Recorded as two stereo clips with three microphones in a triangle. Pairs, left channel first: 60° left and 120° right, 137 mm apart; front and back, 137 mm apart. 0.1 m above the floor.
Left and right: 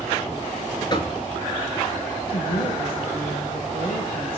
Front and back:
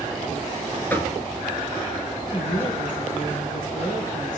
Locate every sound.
0.9 s knocking: 65° left, 0.9 m
2.3 s a woman speaking: 15° left, 4.5 m